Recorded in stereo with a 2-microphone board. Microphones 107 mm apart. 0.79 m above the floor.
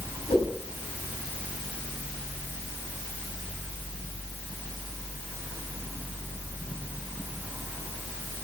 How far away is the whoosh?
About 7 m.